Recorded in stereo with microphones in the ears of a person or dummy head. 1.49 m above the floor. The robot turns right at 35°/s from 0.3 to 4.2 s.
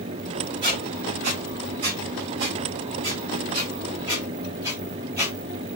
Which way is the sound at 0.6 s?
30° right (ahead or behind).